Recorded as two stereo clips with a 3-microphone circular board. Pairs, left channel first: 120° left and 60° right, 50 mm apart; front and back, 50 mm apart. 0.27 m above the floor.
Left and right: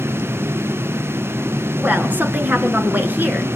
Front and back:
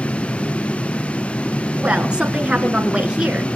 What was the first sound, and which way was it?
A woman speaking, 110° right.